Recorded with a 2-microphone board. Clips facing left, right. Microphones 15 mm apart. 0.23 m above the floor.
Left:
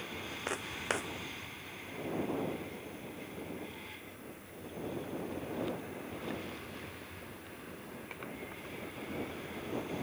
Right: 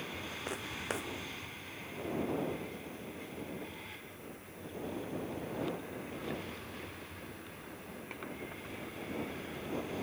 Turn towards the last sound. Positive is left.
turn(degrees=20)  # may be behind; listen again after turning